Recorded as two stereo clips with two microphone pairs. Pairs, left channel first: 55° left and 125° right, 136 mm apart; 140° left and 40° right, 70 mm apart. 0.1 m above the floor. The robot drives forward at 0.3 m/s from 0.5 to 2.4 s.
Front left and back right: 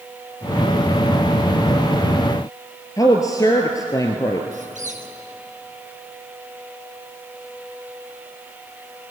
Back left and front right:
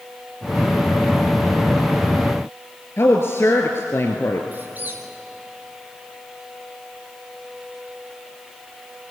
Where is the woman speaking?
110° left, 1.6 m.